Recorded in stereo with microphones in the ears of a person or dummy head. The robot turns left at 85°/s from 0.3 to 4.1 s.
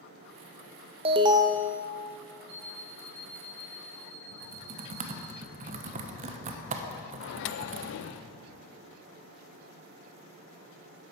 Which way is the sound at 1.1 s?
110° right.